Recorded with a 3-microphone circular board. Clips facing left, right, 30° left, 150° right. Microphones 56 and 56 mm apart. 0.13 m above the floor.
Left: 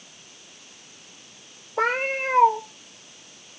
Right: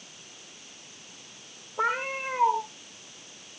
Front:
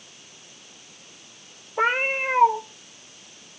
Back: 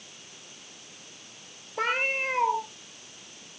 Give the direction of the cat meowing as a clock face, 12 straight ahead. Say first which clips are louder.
Left 4 dB, front 5 dB; 9 o'clock.